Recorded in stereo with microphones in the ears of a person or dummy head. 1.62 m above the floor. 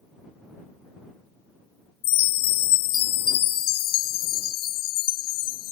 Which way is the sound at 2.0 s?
50° left (ahead or behind).